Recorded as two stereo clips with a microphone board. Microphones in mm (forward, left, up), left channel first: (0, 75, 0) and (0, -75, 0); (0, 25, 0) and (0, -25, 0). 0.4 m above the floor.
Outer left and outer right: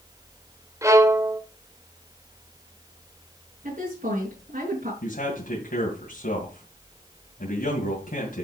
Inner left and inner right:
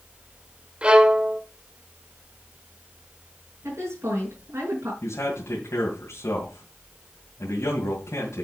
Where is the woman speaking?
55° right (ahead or behind), 5.5 m.